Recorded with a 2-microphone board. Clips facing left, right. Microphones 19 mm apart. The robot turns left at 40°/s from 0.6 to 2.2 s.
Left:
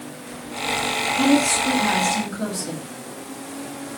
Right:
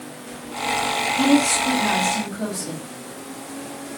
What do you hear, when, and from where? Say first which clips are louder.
1.2 s a woman speaking: even; 140° right, 2.5 m; by 2.9 s straight behind, 2.5 m